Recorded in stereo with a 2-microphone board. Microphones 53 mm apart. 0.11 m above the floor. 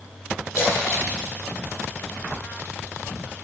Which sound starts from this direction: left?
A splash, at 0.6 s.